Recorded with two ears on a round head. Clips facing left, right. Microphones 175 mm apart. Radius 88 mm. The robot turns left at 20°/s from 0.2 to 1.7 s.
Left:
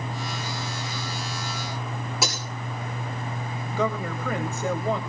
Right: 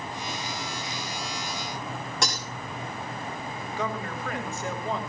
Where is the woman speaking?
80° left, 3.5 m.